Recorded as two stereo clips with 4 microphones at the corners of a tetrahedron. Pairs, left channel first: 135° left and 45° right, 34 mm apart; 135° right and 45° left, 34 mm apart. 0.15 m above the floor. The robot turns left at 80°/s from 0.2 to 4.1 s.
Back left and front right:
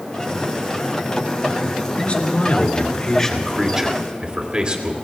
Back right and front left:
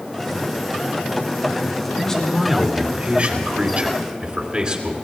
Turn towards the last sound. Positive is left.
turn(degrees=0)